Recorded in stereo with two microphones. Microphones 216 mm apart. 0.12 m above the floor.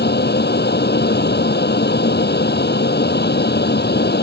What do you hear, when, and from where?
0.0 s an aircraft: 50° left (ahead or behind)